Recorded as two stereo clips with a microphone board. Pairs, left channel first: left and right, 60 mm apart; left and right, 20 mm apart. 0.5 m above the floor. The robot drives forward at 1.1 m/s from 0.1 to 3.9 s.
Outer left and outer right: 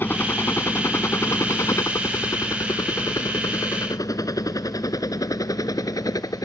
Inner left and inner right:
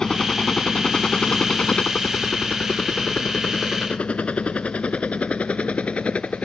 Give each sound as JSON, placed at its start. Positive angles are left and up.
{"t": 0.0, "sound": "a helicopter", "side_deg": 35}